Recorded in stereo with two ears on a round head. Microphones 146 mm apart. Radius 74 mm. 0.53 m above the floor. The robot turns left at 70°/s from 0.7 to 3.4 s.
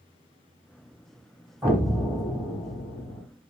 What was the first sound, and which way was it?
An explosion, 160° right.